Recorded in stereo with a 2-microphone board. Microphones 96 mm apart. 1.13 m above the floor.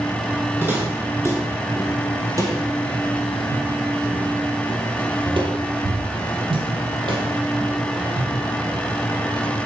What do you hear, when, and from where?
0.6 s footsteps: 20° right (ahead or behind), 2.5 m; by 8.8 s 50° right (ahead or behind), 3 m